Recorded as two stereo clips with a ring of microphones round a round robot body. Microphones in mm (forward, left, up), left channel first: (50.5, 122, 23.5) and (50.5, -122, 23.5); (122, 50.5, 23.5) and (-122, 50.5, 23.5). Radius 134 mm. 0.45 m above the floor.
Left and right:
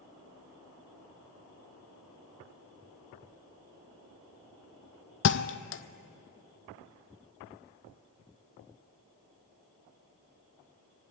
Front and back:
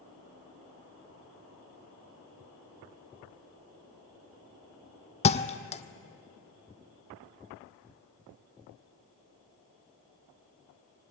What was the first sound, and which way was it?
A thud, 60° left.